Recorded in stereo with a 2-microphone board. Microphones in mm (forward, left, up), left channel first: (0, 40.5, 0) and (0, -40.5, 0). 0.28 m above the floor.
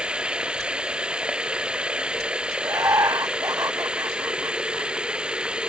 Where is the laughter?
40° right (ahead or behind).